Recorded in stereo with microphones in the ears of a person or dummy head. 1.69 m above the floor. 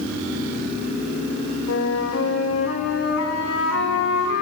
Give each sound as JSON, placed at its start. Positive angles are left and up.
{"t": 1.7, "sound": "a flute", "side_deg": 85, "distance_m": 3.0}